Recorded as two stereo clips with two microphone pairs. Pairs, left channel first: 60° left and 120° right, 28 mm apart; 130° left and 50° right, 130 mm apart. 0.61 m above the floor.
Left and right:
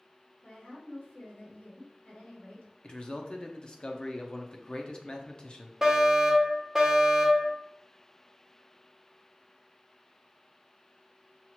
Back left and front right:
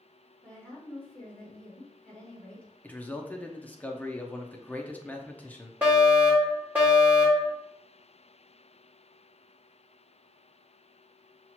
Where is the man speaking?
60° left, 0.6 m.